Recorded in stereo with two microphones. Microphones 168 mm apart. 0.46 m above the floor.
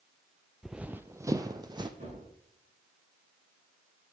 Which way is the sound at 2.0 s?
50° right (ahead or behind).